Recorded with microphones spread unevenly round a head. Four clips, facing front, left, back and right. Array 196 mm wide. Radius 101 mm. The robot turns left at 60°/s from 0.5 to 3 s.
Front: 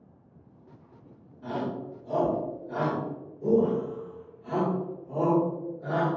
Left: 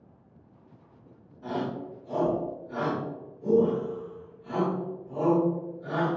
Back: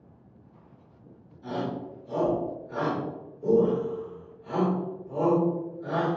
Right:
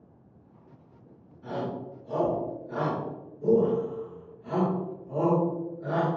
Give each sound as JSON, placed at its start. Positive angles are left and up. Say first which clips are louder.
{"t": 1.4, "sound": "a shout", "louder": "left 1 dB, even", "azimuth_deg": 55, "distance_m": 1.7}